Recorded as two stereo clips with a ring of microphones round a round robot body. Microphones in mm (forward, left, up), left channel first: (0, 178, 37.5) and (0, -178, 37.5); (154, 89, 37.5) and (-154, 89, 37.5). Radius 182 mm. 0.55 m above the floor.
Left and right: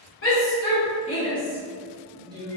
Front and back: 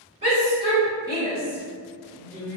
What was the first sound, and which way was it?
A shout, 120° left.